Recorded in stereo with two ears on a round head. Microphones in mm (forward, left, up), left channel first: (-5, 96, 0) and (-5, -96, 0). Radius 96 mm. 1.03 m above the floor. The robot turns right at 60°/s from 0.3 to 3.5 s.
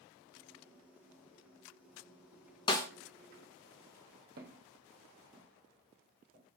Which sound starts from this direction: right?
Footsteps, at 4.4 s.